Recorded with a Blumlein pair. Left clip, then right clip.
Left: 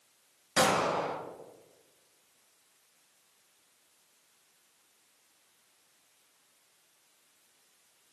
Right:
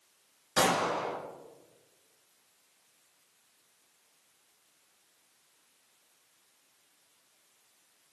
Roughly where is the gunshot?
Ahead.